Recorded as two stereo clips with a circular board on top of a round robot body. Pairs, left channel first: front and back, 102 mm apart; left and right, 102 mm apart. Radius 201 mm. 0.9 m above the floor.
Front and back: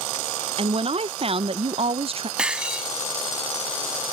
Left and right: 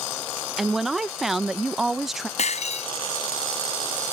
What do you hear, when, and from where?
0.6 s a woman speaking: 175° right
2.4 s breaking glass: 100° left